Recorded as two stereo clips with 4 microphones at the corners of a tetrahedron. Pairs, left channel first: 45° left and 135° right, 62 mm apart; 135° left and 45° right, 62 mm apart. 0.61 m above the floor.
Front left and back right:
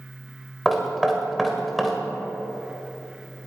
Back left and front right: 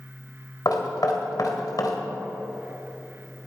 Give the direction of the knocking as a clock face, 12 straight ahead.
8 o'clock.